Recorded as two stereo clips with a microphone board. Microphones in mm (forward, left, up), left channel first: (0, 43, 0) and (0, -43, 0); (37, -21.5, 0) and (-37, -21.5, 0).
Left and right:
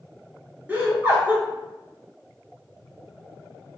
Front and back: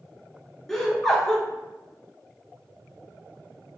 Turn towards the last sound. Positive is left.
turn(degrees=-70)